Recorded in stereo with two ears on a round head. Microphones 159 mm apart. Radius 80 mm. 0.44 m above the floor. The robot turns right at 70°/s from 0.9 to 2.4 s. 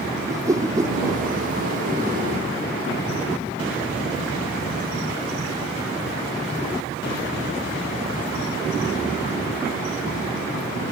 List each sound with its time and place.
0.3 s a whoosh: 20° right (ahead or behind)